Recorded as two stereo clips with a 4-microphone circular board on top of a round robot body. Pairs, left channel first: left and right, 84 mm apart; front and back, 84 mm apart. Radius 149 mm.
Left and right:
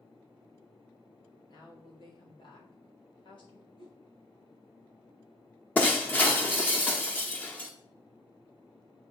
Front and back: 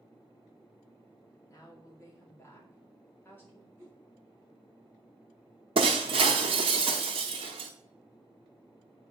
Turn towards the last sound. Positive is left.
turn(degrees=165)